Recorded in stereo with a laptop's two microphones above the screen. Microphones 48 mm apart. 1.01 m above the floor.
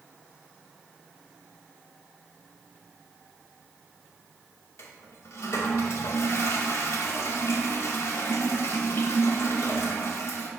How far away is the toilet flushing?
About 0.9 m.